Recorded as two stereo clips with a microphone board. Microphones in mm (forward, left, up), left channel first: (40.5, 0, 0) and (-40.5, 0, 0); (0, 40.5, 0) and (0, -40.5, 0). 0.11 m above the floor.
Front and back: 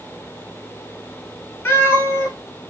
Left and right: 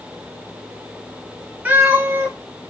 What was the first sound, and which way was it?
A cat meowing, 35° right.